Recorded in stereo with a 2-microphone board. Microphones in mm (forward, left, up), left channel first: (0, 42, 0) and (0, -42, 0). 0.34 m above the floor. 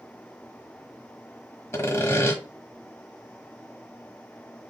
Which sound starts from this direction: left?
Sawing, at 1.7 s.